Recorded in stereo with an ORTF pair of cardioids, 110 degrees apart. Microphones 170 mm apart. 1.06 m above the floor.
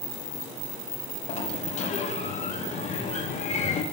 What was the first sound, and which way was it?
A sliding door, 45° left.